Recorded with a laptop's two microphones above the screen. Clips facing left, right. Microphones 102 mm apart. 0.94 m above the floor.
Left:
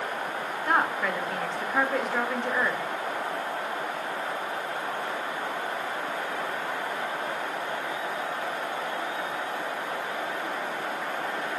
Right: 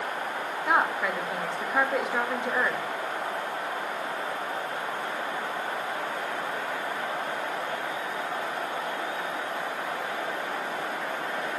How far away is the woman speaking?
About 3 m.